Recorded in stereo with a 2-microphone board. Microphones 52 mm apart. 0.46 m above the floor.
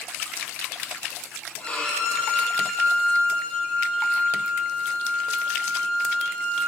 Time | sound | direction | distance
1.6 | a violin | 25° left (ahead or behind) | 9.5 m